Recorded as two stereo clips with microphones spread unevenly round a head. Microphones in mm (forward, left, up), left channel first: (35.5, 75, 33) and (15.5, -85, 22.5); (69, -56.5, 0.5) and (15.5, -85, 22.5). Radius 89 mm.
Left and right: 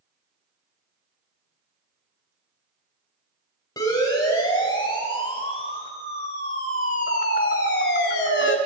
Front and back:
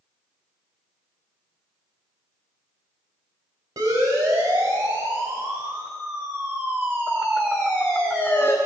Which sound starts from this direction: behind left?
A siren, at 3.8 s.